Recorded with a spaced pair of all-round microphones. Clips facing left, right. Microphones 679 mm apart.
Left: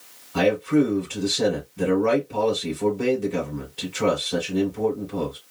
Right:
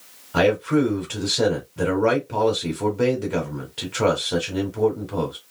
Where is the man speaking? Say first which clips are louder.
Even; 85° right, 1.8 m.